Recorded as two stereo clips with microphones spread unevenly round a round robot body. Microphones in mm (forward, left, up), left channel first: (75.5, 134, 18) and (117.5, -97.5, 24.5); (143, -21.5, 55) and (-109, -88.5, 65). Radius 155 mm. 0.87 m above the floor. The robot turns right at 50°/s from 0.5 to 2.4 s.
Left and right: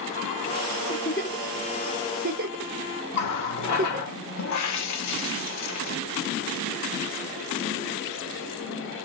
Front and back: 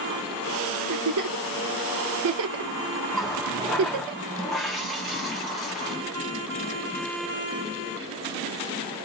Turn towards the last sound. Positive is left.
turn(degrees=105)